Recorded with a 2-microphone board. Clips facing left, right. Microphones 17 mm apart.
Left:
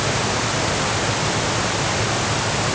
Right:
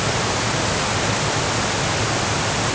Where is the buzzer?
No buzzer in this recording.